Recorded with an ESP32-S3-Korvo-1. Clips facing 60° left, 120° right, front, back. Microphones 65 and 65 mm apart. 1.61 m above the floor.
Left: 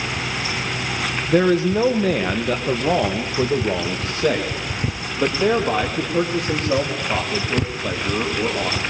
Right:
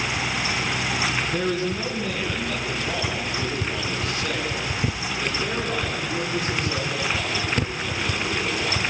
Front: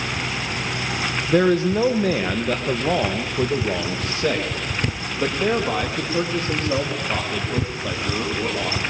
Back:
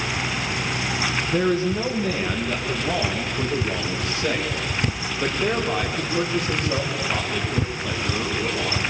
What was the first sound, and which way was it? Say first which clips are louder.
A man speaking: left 8 dB, front 5 dB; 30° left.